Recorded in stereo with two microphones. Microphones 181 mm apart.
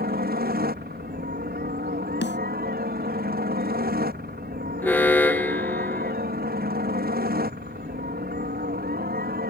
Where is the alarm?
10° left (ahead or behind).